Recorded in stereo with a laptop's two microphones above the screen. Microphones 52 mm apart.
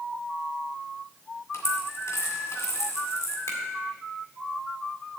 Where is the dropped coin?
70° left (ahead or behind), 2 m.